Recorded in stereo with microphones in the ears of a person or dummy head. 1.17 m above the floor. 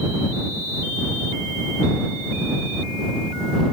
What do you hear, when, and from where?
Only background noise.